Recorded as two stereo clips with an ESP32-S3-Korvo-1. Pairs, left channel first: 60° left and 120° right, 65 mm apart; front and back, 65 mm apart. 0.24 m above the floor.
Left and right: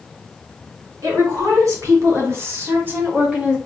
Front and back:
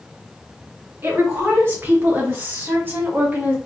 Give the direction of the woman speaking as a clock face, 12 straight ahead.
4 o'clock.